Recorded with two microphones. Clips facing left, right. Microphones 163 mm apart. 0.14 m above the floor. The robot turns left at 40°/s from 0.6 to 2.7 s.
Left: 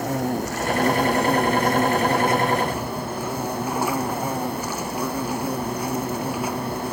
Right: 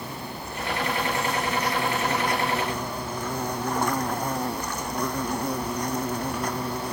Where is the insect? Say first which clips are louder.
Left 12 dB; 90° left; by 6.9 s 10° left.